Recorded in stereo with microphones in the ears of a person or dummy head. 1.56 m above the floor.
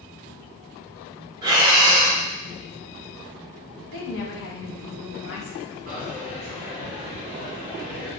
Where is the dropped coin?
45° right (ahead or behind), 1.7 m.